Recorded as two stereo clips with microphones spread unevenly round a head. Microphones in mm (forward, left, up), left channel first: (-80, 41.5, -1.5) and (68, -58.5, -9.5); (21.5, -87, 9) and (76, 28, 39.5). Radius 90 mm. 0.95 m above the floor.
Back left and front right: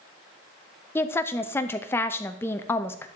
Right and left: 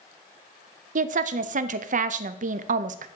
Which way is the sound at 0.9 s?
70° left.